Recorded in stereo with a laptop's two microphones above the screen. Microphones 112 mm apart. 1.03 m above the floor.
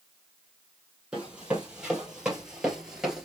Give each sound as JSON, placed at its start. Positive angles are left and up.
{"t": 1.1, "sound": "running footsteps", "side_deg": -10, "distance_m": 2.0}